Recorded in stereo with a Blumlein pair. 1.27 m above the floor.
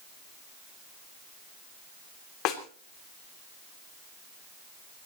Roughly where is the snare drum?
Ahead left.